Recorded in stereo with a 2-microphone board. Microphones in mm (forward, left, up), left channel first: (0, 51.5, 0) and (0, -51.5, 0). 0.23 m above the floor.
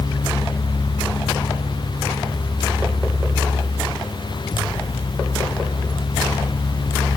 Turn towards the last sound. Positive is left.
No sound to turn to.